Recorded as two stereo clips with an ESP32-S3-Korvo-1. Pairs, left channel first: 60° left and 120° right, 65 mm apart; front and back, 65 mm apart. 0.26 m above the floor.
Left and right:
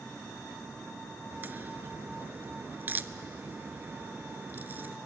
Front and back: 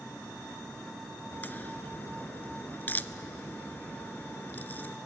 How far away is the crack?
About 0.5 m.